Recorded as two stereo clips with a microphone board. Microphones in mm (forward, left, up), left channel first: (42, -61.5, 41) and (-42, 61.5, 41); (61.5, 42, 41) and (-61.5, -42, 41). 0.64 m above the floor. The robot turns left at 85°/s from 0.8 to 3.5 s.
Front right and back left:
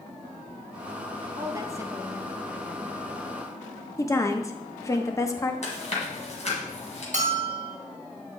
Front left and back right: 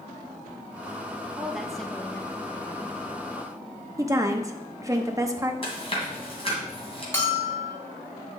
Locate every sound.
1.4 s a woman speaking: 150° left, 0.8 m; by 2.9 s 15° left, 0.8 m
4.0 s a woman speaking: 100° right, 0.8 m
5.6 s chewing: 15° right, 2.5 m
7.1 s a bell: 105° left, 1.4 m